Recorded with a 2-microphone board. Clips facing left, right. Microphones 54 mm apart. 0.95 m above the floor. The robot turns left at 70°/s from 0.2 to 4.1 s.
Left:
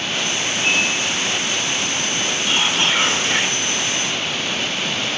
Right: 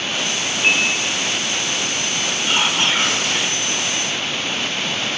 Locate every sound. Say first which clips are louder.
0.6 s a piano: right 2 dB; 40° right (ahead or behind), 9.5 m; by 1.0 s 15° right (ahead or behind), 9.5 m
2.5 s whispering: right 1 dB; 155° right, 2.5 m; by 3.7 s 120° left, 2.5 m